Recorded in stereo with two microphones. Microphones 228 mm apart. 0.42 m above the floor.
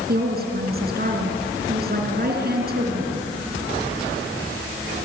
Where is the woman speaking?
45° right (ahead or behind), 4.5 m.